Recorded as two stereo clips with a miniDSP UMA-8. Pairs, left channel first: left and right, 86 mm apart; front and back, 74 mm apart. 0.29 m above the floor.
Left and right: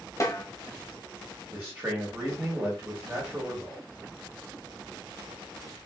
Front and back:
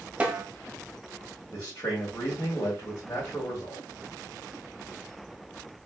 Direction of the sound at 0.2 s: 115° left.